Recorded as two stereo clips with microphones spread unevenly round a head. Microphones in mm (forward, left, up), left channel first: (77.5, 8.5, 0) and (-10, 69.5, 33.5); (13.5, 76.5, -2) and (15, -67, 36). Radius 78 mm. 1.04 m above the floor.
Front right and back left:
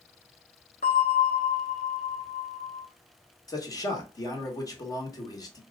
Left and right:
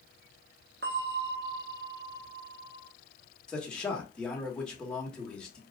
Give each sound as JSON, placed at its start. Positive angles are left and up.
{"t": 0.8, "sound": "a bell", "azimuth_deg": -80, "distance_m": 1.0}
{"t": 3.5, "sound": "a man speaking", "azimuth_deg": 10, "distance_m": 1.3}